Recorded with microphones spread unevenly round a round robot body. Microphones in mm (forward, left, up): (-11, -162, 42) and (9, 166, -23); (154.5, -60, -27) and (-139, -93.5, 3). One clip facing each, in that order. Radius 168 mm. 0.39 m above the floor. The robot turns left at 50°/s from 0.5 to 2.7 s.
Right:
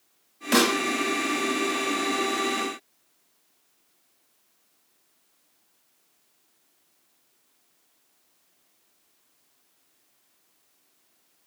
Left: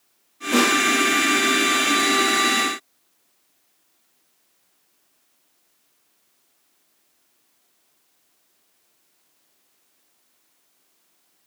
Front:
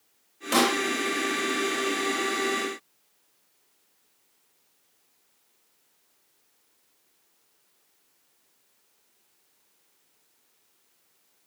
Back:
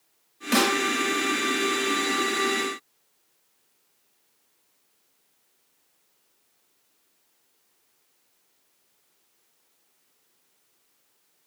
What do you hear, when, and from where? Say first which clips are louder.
0.5 s a snare drum: left 2 dB, back 1 dB; 105° right, 1.3 m; by 0.8 s 115° right, 1.3 m